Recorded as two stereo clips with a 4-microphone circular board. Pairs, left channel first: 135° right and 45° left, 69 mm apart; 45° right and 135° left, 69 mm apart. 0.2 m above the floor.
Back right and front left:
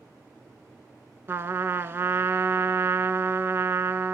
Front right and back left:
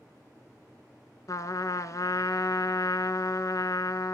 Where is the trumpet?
10° right, 0.6 m.